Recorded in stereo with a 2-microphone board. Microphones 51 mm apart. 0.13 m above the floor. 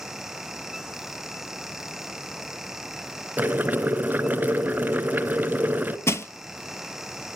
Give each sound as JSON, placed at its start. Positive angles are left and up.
{"t": 3.4, "sound": "boiling", "side_deg": -35, "distance_m": 1.3}
{"t": 6.1, "sound": "crushing", "side_deg": 60, "distance_m": 1.1}